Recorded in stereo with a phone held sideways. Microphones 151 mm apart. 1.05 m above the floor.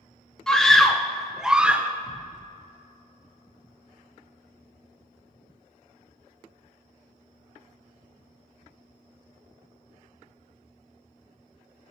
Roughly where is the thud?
Left.